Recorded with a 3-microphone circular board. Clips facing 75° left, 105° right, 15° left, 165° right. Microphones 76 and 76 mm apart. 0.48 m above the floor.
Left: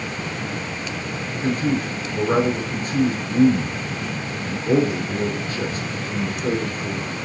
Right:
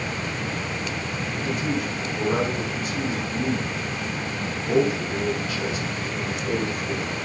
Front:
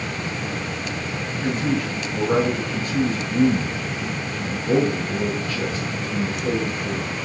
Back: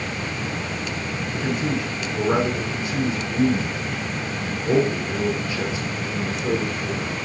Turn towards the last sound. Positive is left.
turn(degrees=115)